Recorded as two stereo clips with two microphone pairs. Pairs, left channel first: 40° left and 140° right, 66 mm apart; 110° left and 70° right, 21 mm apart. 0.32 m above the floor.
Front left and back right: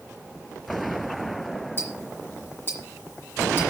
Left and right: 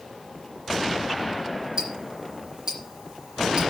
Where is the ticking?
15° right, 3.5 m.